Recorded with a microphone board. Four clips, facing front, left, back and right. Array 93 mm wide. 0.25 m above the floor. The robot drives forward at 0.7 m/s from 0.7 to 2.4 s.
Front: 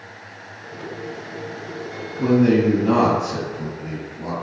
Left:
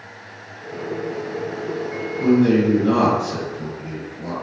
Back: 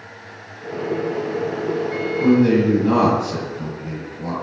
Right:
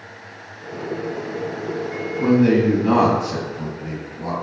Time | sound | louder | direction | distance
2.2 | a man speaking | even, back 1 dB | 75° right | 1.9 m